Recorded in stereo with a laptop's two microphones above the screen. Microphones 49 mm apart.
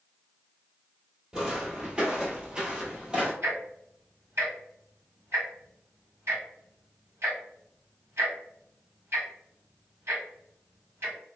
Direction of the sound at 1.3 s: 15° right (ahead or behind).